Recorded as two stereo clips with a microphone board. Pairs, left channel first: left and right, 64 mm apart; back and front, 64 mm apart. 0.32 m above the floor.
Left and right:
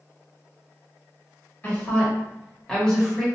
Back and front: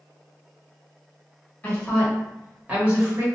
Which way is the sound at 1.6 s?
130° left.